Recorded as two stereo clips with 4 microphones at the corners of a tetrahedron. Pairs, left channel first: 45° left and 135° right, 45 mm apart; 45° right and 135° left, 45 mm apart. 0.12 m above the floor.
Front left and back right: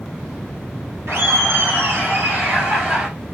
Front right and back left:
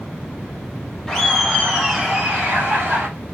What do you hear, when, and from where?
1.1 s laughter: 120° right, 3 m; by 3.1 s 165° left, 2.5 m